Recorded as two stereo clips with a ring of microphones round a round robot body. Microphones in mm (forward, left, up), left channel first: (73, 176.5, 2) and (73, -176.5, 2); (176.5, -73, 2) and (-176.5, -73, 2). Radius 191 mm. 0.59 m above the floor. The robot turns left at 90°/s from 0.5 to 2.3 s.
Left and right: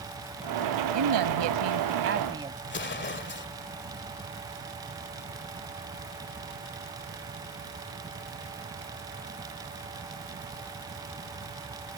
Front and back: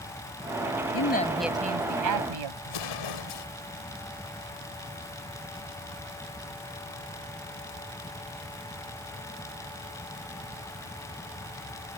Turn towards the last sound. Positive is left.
turn(degrees=30)